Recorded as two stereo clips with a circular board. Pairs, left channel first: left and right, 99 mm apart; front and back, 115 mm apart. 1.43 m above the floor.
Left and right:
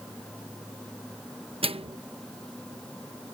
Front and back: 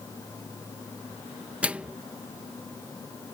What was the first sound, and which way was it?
A microwave, 100° right.